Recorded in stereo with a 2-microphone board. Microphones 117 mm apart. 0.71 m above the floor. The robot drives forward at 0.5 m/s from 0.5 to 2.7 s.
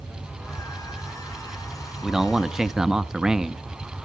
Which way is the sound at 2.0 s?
5° right (ahead or behind).